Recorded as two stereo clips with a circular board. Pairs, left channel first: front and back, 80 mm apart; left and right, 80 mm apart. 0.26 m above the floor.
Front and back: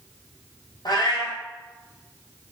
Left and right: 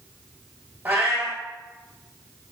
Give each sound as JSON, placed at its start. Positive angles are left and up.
{"t": 0.8, "sound": "a cat meowing", "azimuth_deg": -25, "distance_m": 1.3}